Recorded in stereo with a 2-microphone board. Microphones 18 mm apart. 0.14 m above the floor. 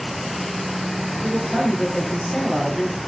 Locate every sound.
1.2 s a man speaking: 45° left (ahead or behind), 3.5 m